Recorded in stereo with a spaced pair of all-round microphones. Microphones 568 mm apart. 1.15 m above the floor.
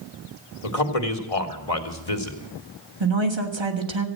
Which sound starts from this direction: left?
A man speaking, at 0.6 s.